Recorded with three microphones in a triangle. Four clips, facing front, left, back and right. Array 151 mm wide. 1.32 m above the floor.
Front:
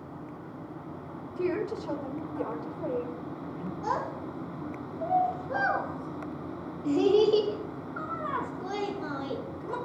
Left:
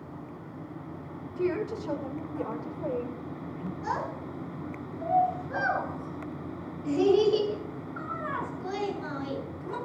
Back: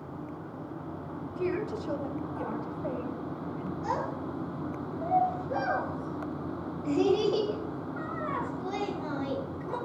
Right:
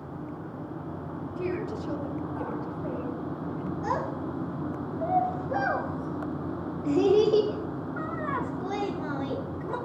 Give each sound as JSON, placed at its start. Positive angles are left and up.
{"t": 1.4, "sound": "a woman speaking", "azimuth_deg": 30, "distance_m": 6.5}
{"t": 3.8, "sound": "a child speaking", "azimuth_deg": -40, "distance_m": 9.0}